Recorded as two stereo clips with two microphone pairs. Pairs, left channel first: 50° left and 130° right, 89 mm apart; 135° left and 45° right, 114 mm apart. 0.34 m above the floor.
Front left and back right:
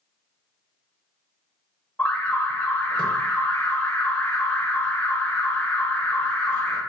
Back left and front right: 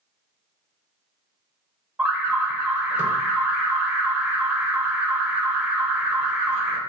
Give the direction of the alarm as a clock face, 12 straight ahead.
12 o'clock.